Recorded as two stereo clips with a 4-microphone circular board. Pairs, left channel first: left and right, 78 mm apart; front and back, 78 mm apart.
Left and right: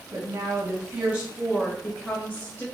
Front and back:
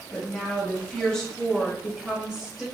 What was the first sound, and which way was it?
A woman speaking, 65° right.